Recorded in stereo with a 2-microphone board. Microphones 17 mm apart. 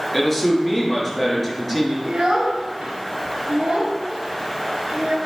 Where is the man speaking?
5° left (ahead or behind), 3 m.